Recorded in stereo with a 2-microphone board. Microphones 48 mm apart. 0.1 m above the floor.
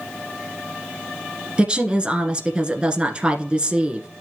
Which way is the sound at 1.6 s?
20° right (ahead or behind).